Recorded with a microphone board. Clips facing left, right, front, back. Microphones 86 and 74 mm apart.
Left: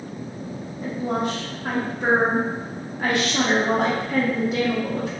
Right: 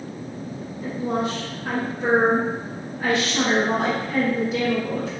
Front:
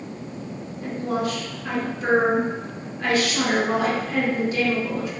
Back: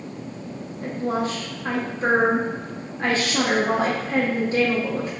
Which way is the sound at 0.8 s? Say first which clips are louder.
Even, back 1 dB; 125° left.